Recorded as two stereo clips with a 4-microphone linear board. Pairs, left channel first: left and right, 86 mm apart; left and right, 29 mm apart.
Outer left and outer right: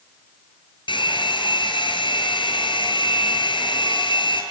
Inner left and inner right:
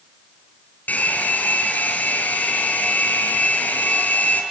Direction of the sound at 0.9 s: 70° left (ahead or behind).